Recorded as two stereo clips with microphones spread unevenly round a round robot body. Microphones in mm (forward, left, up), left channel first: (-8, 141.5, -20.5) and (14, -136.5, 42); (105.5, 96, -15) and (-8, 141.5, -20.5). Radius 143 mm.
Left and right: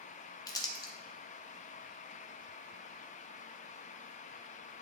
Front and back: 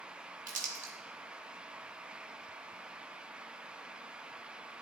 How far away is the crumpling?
About 0.9 m.